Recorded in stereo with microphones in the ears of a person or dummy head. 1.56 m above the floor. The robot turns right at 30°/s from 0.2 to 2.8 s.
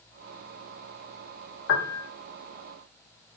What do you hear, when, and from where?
1.7 s a piano: 70° left (ahead or behind), 1.1 m; by 2.1 s 60° left (ahead or behind), 1.1 m